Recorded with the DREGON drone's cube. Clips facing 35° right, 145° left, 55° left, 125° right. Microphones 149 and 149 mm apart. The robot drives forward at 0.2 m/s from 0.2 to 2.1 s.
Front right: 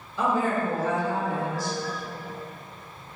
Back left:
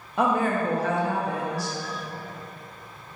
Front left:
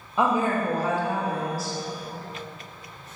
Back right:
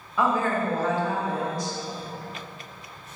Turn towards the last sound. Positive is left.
turn(degrees=145)